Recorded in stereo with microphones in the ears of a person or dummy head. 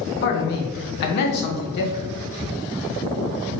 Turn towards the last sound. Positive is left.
turn(degrees=60)  # may be behind; listen again after turning